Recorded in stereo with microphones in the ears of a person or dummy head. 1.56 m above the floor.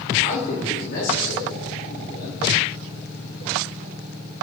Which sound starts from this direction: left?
A man speaking, at 0.2 s.